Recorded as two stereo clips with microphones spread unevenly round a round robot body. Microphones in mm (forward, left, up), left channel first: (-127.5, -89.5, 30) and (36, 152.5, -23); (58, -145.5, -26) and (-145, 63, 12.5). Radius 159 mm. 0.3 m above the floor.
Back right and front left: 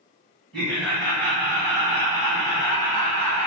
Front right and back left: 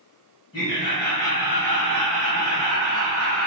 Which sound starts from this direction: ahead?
Laughter, at 0.5 s.